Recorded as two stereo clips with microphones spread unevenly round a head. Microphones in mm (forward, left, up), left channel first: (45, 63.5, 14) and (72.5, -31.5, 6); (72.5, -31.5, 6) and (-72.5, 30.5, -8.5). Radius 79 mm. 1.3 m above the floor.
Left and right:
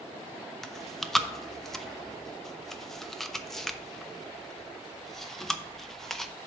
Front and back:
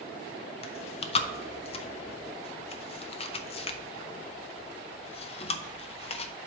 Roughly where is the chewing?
Ahead.